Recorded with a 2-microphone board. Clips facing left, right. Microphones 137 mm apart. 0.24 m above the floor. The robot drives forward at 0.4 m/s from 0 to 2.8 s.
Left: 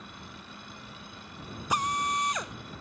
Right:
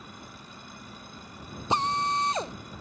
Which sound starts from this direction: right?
A drill, at 1.7 s.